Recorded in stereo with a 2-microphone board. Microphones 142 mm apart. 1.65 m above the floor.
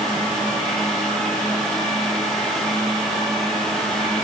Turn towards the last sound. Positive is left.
No sound to turn to.